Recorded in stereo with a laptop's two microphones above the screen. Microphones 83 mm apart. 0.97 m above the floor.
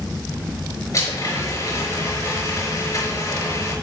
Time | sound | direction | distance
0.9 | a blender | 40° left (ahead or behind) | 4.5 m